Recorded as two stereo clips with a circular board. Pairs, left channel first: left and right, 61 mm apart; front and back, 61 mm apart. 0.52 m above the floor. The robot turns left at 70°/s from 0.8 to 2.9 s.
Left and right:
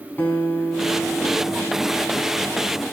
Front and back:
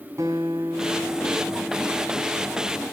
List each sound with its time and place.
0.2 s a guitar: 145° left, 5 m; by 2.8 s 5° left, 5 m